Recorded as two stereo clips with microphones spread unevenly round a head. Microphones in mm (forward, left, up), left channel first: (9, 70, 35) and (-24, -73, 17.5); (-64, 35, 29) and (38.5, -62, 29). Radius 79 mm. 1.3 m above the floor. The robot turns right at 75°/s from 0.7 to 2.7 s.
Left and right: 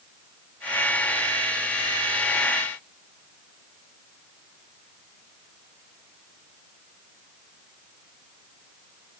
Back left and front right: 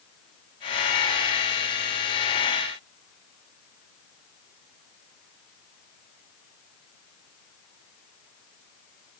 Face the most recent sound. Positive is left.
No sound to turn to.